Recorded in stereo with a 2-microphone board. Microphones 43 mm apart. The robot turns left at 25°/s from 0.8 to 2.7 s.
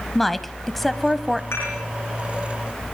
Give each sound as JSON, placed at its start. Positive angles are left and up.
{"t": 0.1, "sound": "a woman speaking", "side_deg": 5, "distance_m": 1.1}
{"t": 1.5, "sound": "dishes clattering", "side_deg": 75, "distance_m": 9.0}